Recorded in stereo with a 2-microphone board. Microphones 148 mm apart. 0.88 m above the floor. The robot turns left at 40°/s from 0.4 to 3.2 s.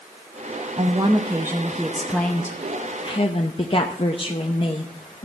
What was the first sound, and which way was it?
A woman speaking, 130° right.